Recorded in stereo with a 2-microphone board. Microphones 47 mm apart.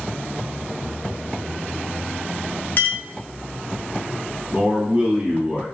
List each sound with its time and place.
2.8 s a clink: 40° left (ahead or behind), 0.5 m
4.5 s a man speaking: 20° right (ahead or behind), 1.5 m